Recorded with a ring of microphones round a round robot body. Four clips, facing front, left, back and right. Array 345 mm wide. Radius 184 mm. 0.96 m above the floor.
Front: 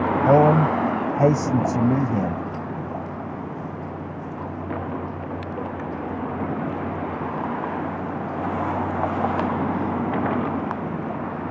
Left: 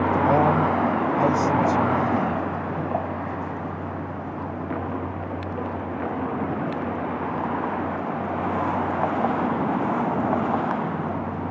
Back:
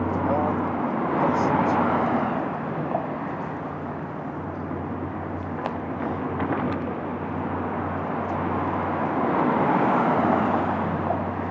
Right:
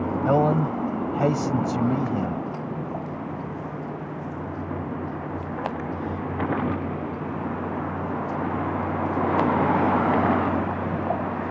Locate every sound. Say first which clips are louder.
0.2 s a man speaking: even, front 11 dB; 10° right